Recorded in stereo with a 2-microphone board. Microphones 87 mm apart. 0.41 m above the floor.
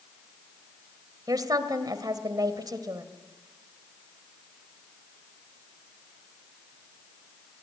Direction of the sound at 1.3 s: 50° right (ahead or behind).